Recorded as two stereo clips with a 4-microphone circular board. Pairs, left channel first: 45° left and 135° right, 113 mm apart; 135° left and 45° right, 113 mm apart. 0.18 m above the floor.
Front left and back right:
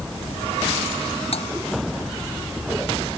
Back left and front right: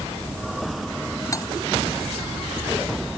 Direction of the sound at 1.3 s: 75° left.